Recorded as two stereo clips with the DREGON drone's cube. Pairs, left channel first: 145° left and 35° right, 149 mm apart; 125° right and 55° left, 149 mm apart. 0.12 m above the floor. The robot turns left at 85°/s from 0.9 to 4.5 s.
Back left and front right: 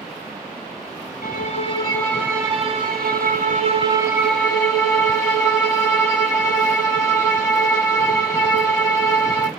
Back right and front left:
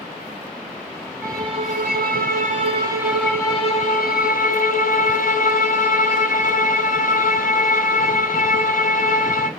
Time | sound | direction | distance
1.2 | a violin | 140° left | 1.6 m